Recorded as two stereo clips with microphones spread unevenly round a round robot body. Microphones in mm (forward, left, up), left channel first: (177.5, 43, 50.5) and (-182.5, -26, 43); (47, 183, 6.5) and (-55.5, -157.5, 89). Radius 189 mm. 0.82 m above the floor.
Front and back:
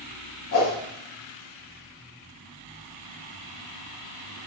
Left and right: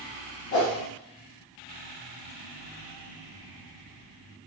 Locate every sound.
0.5 s a whoosh: 40° left, 1.4 m